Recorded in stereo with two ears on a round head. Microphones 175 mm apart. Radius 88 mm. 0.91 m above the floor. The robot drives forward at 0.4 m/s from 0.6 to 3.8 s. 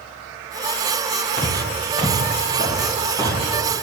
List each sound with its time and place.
1.4 s footsteps: 30° left (ahead or behind), 1.3 m